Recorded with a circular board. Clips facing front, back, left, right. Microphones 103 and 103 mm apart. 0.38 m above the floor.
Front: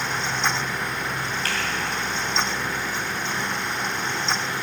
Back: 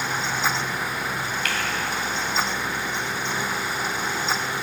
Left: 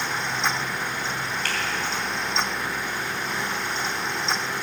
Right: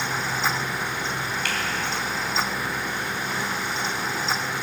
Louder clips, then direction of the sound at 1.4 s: Even, even; 50° left.